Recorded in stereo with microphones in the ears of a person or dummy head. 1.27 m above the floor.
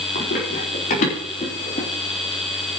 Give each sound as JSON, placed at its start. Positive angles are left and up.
{"t": 0.1, "sound": "running footsteps", "side_deg": 60, "distance_m": 4.0}